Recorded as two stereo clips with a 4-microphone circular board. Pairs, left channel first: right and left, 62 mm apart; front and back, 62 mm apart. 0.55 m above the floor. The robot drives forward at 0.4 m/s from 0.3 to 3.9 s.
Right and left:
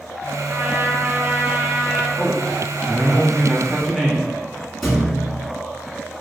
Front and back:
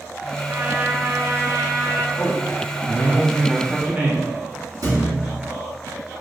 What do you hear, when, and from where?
0.5 s a trumpet: 125° left, 0.6 m; by 2.1 s 155° left, 1.0 m
2.2 s a man speaking: 5° left, 0.9 m; by 4.3 s 175° left, 0.9 m
4.8 s a thud: straight behind, 2.0 m